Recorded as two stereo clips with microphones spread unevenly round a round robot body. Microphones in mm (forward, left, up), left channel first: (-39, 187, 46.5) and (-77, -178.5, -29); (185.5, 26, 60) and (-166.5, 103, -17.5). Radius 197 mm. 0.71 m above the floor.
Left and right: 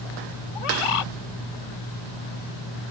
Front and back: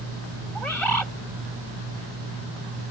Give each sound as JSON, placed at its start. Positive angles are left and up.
{"t": 0.6, "sound": "a bird", "azimuth_deg": 75}